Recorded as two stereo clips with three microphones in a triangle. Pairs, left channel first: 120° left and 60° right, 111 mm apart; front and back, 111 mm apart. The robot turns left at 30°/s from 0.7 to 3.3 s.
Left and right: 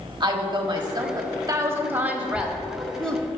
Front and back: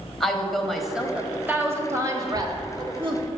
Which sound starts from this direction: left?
A child speaking, at 2.2 s.